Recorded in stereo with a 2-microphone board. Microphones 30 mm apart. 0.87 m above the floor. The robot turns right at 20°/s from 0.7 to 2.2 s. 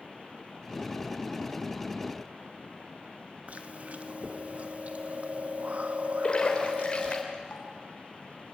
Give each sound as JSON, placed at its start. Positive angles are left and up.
{"t": 3.5, "sound": "chewing", "side_deg": -55, "distance_m": 1.2}
{"t": 6.2, "sound": "a splash", "side_deg": 35, "distance_m": 3.5}